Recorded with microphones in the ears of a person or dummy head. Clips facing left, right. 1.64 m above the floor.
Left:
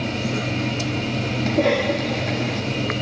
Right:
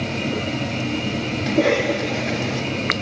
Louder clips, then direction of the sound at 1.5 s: Right 1 dB; 5° right (ahead or behind).